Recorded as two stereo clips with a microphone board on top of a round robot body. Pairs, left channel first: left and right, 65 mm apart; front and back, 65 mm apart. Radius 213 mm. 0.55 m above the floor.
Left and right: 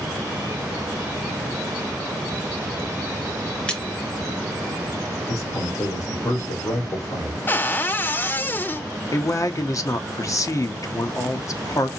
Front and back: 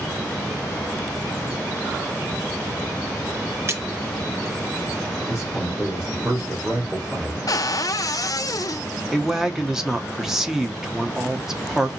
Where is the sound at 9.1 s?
95° left, 0.9 m.